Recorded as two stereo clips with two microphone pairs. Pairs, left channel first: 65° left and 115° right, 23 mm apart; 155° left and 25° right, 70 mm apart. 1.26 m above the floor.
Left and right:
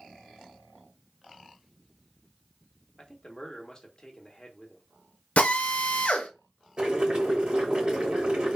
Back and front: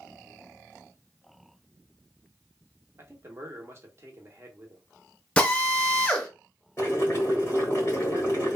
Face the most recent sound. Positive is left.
turn(degrees=-150)